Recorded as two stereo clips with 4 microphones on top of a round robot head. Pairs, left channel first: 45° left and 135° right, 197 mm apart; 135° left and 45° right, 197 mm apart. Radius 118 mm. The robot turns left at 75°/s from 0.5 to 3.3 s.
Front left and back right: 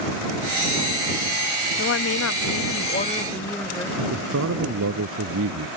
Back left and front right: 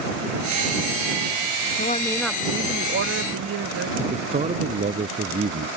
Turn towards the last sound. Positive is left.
turn(degrees=-105)